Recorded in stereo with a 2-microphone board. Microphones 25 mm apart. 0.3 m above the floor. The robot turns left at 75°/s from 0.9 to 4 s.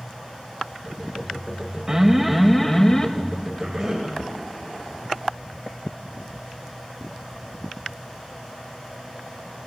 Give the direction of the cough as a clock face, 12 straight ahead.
4 o'clock.